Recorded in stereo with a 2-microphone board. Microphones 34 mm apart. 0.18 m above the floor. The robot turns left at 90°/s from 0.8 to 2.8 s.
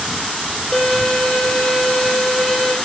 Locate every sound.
0.7 s a violin: 160° left, 0.7 m; by 2.8 s 15° right, 0.7 m